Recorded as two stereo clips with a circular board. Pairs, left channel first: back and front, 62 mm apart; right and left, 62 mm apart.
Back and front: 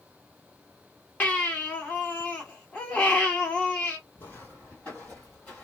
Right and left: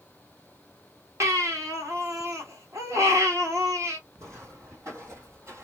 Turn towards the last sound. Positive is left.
turn(degrees=120)